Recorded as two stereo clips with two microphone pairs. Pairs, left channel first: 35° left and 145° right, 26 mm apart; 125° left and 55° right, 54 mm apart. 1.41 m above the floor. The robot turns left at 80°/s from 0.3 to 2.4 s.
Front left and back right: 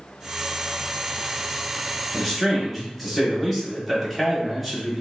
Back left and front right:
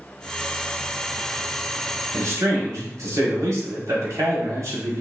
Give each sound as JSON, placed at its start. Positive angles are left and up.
{"t": 2.1, "sound": "a man speaking", "azimuth_deg": -30, "distance_m": 1.3}